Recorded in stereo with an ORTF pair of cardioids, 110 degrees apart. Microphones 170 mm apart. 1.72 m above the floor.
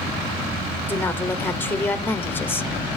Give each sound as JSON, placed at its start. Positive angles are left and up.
{"t": 0.9, "sound": "a woman speaking", "azimuth_deg": 10, "distance_m": 0.9}